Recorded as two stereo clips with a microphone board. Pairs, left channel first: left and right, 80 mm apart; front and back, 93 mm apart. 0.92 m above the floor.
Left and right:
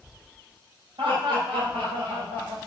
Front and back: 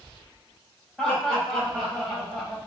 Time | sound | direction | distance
1.0 | laughter | 85° right | 5 m